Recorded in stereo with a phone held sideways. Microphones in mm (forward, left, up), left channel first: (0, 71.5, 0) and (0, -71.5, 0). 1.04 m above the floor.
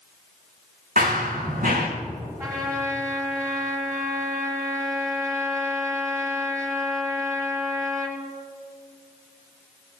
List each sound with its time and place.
1.0 s running footsteps: 70° right (ahead or behind), 3 m
2.4 s a trumpet: 25° right (ahead or behind), 7 m